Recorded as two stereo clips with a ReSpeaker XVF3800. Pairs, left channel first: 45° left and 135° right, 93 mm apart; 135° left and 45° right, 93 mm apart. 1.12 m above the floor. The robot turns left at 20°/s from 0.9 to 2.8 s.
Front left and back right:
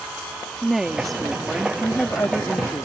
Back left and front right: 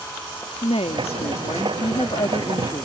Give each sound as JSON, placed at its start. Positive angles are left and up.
{"t": 0.6, "sound": "a woman speaking", "azimuth_deg": 135}